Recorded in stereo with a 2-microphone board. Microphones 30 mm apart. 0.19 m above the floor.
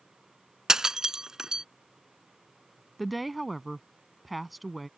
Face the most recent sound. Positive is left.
turn(degrees=0)  # may be behind; listen again after turning